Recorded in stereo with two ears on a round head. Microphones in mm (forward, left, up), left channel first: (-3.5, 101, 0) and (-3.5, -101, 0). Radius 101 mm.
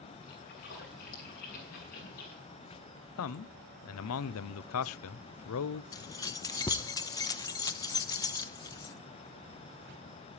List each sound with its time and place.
0.3 s a splash: 45° left (ahead or behind), 7.5 m
3.2 s a man speaking: 70° left (ahead or behind), 0.5 m
5.9 s keys jangling: 15° left (ahead or behind), 0.7 m